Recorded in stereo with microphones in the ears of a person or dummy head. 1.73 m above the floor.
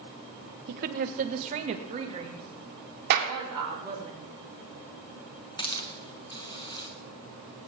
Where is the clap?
60° right (ahead or behind), 2.5 m.